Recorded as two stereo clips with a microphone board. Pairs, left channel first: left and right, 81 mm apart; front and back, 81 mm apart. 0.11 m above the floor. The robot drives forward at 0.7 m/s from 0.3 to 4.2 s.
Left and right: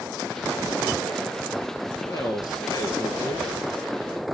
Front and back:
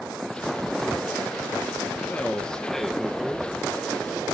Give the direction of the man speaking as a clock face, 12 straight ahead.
10 o'clock.